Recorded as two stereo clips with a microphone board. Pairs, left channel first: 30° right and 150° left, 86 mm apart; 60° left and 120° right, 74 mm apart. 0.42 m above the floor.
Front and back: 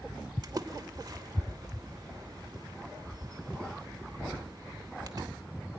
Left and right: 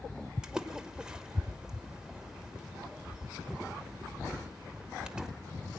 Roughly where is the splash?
Behind.